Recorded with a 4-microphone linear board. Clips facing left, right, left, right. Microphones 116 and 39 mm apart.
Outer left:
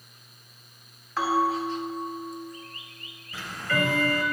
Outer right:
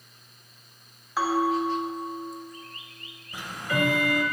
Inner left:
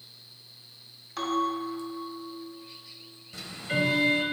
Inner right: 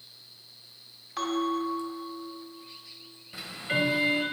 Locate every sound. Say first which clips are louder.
1.2 s a bell: outer right 1 dB, even; 5° right (ahead or behind), 1.6 m
3.3 s ticking: even, even; 20° right (ahead or behind), 0.6 m